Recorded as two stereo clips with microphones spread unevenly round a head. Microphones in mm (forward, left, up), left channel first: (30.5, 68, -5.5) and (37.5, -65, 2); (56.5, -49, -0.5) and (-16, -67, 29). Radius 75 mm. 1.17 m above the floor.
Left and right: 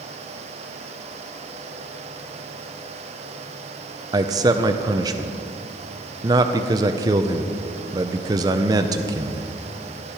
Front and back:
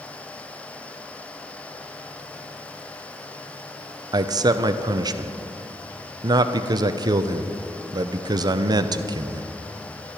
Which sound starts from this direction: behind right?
A man speaking, at 4.1 s.